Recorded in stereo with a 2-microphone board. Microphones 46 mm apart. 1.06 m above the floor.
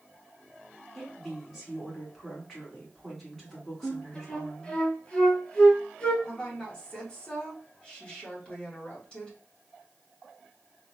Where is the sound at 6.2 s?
20° left (ahead or behind), 1.4 m.